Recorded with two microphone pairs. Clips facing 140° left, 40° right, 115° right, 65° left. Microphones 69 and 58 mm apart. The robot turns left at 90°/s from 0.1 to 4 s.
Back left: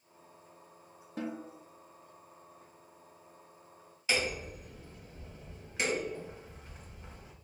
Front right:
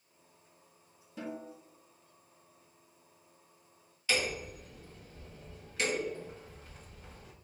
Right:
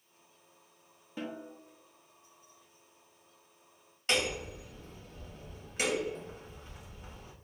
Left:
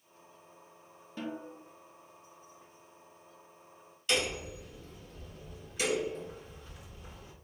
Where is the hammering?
150° right, 1.7 m.